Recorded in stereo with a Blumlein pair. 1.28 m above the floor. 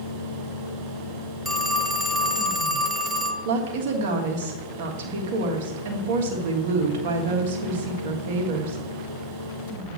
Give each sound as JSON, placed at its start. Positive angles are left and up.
{"t": 0.0, "sound": "a fan", "azimuth_deg": -40, "distance_m": 2.0}
{"t": 1.4, "sound": "a phone ringing", "azimuth_deg": -10, "distance_m": 0.7}
{"t": 3.5, "sound": "a woman speaking", "azimuth_deg": -55, "distance_m": 1.4}